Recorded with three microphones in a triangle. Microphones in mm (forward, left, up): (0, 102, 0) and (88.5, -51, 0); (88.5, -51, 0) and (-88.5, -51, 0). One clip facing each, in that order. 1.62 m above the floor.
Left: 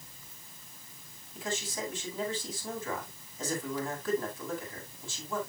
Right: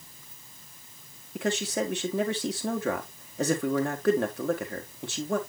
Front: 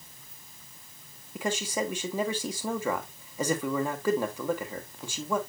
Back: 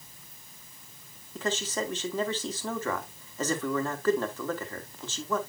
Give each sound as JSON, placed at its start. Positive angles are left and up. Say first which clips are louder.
{"t": 1.4, "sound": "a man speaking", "louder": "right 8 dB, front 1 dB", "azimuth_deg": -80, "distance_m": 1.5}